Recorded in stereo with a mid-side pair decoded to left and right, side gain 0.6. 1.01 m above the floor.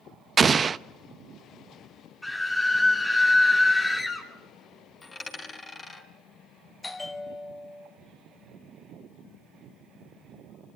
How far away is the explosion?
About 0.5 m.